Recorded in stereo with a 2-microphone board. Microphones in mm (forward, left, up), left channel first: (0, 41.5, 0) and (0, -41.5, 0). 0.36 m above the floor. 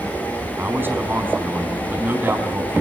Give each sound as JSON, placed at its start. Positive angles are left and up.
{"t": 0.6, "sound": "a man speaking", "side_deg": -25, "distance_m": 3.5}